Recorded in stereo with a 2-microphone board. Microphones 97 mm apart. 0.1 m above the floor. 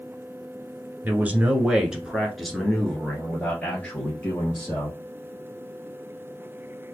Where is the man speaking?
20° right (ahead or behind), 1.2 m; by 5.0 s 20° left (ahead or behind), 1.9 m.